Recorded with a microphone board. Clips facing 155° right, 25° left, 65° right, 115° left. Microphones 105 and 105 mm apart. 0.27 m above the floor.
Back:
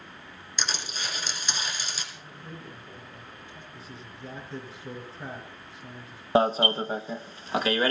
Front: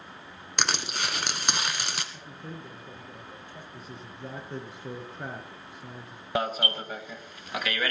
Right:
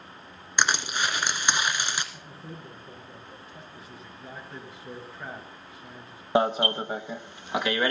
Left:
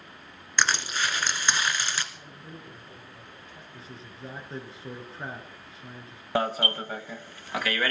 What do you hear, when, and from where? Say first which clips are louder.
0.6 s crushing: front 4 dB, right 1 dB; 5° left, 1.6 m
2.1 s a man speaking: front 2 dB, right 2 dB; 10° right, 5 m
3.7 s a man speaking: front 1 dB, even; 50° left, 4.5 m
6.3 s an alarm: back 7 dB, right 4 dB; 125° right, 0.9 m